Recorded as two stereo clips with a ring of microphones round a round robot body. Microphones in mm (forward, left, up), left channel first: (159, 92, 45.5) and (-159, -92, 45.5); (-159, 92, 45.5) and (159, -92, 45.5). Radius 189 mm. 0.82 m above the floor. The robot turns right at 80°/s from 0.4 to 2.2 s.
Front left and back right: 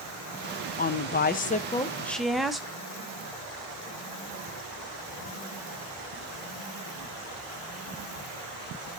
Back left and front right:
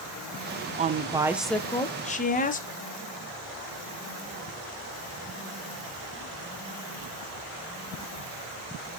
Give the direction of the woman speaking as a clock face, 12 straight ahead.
12 o'clock.